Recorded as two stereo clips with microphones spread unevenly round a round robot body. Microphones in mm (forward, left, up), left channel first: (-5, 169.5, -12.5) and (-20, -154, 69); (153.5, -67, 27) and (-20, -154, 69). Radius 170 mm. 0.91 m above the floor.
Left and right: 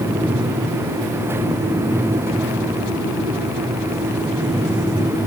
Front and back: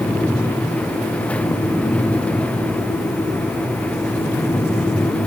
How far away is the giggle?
I don't hear a giggle.